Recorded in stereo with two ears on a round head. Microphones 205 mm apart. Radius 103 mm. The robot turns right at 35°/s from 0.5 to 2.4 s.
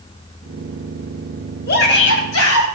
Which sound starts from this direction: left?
A shout, at 1.7 s.